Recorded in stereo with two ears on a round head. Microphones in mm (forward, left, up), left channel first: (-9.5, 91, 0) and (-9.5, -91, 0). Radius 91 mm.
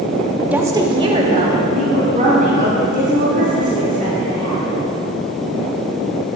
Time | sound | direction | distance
0.5 | a woman speaking | 10° right (ahead or behind) | 1.0 m